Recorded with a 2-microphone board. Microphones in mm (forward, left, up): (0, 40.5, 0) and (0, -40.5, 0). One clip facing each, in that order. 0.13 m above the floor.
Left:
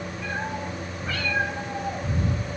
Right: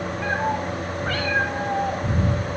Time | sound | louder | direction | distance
0.2 | a cat meowing | right 7 dB | 55° right (ahead or behind) | 5.5 m